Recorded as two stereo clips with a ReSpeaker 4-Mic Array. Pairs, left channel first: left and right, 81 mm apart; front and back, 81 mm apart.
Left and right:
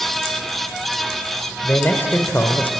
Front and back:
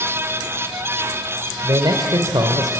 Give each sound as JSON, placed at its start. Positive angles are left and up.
{"t": 1.6, "sound": "a man speaking", "azimuth_deg": 155, "distance_m": 1.6}